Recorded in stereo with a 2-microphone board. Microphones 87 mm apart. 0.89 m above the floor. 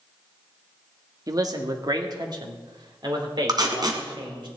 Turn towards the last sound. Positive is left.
turn(degrees=-50)  # may be behind; listen again after turning